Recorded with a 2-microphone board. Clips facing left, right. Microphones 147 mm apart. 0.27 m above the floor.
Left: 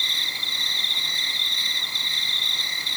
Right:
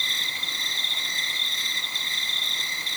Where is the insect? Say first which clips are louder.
Even; 30° left (ahead or behind), 5 m.